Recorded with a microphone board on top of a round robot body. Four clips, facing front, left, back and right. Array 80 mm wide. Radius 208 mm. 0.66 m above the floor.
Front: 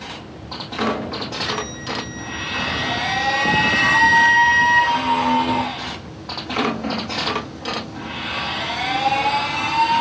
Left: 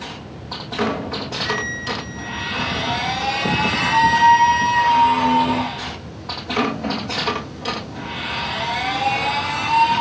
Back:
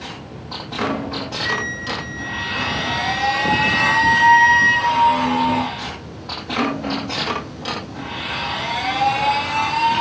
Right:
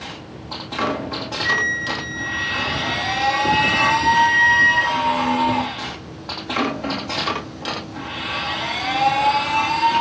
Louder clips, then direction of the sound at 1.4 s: Right 4 dB, back 4 dB; 110° right.